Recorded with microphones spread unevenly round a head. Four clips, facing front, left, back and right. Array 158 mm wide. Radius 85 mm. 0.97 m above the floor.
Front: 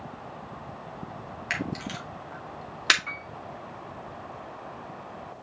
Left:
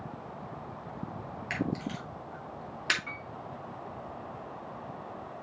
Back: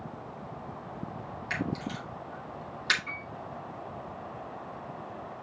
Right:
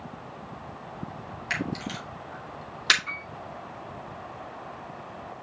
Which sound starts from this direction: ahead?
A camera shutter, at 1.5 s.